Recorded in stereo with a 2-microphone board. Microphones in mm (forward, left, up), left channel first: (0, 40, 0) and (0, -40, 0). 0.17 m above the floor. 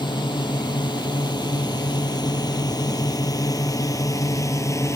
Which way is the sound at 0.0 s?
70° left (ahead or behind).